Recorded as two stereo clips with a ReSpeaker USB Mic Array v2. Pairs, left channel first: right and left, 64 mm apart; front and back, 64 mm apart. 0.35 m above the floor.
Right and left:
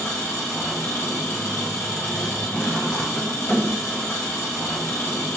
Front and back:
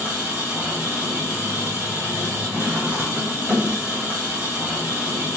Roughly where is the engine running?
Behind right.